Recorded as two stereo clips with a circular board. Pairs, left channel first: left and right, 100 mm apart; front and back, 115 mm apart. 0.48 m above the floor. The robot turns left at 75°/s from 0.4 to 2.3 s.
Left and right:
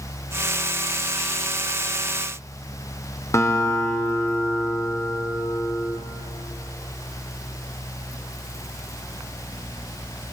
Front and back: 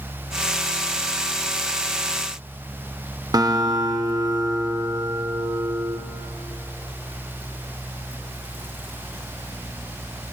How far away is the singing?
I don't hear singing.